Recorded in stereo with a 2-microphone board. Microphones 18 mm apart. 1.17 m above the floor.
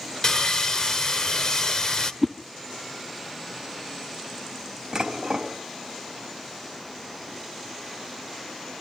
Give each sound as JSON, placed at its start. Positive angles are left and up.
{"t": 0.2, "sound": "sawing", "side_deg": 35, "distance_m": 1.6}
{"t": 2.2, "sound": "a whoosh", "side_deg": 10, "distance_m": 0.8}
{"t": 4.9, "sound": "dishes clattering", "side_deg": -30, "distance_m": 4.5}